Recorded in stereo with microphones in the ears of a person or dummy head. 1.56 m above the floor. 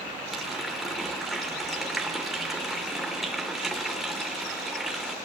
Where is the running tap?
Centre (ahead or behind), 0.7 m.